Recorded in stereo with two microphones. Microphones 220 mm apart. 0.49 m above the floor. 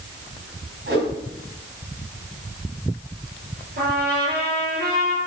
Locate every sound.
0.9 s a whoosh: 55° right (ahead or behind), 3 m
3.8 s a trumpet: 50° right (ahead or behind), 5 m